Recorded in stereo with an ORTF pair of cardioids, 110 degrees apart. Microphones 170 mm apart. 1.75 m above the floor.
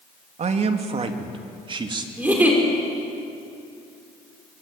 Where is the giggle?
10° right, 5.5 m.